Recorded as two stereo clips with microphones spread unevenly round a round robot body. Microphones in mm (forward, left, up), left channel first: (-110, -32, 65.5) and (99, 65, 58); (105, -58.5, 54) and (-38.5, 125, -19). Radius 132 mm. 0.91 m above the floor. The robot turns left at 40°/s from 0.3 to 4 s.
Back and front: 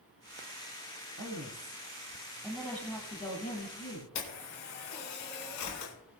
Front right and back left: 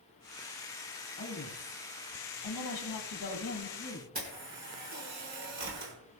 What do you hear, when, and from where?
1.2 s a woman speaking: 10° right, 6.5 m; by 4.1 s 125° right, 6.5 m
4.2 s a camera shutter: 175° right, 4.5 m